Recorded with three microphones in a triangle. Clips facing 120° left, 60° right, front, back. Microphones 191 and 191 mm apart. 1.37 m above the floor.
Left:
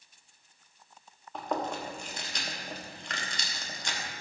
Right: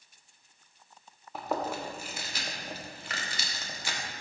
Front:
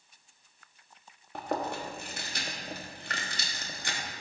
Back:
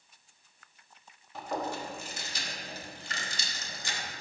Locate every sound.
1.4 s chewing: 25° left, 1.1 m